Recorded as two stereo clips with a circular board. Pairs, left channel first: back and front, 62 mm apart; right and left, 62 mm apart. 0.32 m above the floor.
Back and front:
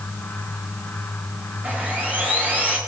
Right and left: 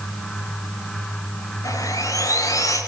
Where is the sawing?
65° right, 10 m.